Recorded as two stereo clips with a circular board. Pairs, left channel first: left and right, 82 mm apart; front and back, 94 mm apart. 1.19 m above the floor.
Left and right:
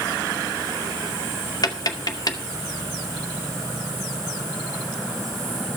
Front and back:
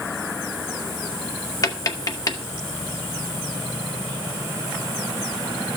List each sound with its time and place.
1.6 s tapping: 50° left, 1.9 m